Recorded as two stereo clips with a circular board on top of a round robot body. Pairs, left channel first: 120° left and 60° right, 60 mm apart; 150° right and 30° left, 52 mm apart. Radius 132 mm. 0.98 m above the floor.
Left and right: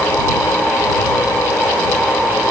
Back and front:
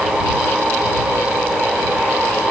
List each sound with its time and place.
Only background noise.